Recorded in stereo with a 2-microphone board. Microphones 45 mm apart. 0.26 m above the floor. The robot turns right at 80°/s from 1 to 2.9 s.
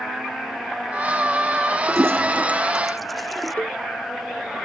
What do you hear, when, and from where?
1.9 s a toilet flushing: 80° right; by 3.5 s centre (ahead or behind)
3.6 s a cowbell: 35° left (ahead or behind)